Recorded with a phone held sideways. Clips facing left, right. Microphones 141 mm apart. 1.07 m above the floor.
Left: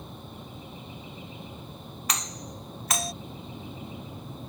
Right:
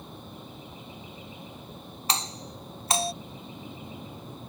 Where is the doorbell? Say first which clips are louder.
Right 3 dB; 30° right (ahead or behind).